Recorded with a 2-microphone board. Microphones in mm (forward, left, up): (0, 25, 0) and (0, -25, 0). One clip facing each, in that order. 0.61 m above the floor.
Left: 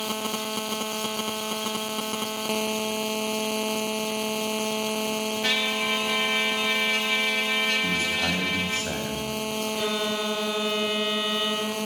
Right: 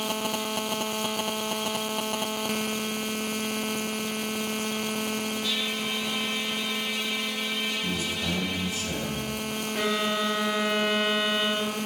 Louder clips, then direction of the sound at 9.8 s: Right 3 dB; 65° right (ahead or behind).